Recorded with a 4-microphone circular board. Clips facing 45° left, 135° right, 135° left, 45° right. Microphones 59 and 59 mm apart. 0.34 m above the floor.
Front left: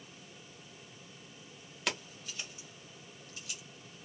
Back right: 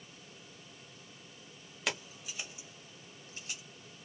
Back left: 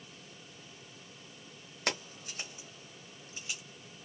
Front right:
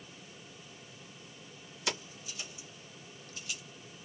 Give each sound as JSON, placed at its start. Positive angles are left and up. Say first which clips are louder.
{"t": 1.9, "sound": "keys jangling", "louder": "even, back left 2 dB", "azimuth_deg": 140, "distance_m": 1.2}